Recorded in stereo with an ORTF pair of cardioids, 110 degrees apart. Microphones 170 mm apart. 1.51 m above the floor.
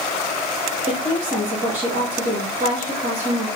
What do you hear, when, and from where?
0.9 s a woman speaking: 50° right, 3 m